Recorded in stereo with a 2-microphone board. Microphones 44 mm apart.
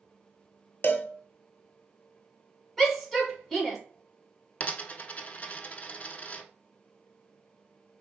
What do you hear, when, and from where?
0.8 s a cowbell: 50° left (ahead or behind), 0.6 m
2.8 s a shout: centre (ahead or behind), 1.7 m
4.6 s a dropped coin: 35° left (ahead or behind), 0.5 m